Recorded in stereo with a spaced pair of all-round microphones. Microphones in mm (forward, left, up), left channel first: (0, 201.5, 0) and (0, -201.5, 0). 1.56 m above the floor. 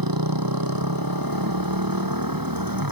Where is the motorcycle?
60° right (ahead or behind); by 2.9 s 55° right (ahead or behind).